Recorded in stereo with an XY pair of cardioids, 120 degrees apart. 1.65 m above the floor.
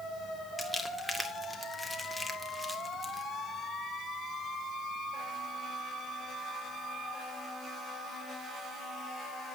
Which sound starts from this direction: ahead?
Crumpling, at 0.6 s.